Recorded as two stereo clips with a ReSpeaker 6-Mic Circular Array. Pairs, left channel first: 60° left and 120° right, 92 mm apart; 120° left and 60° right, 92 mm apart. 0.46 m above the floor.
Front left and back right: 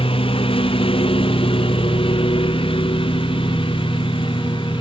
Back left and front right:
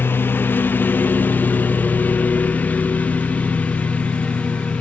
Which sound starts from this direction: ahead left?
A lawn mower, at 0.0 s.